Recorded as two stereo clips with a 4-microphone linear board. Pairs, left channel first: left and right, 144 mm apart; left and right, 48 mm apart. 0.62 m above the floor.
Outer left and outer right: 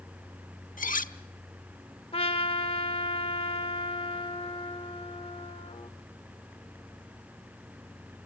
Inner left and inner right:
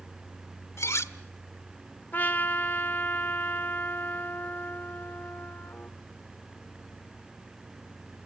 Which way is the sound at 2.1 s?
40° left (ahead or behind).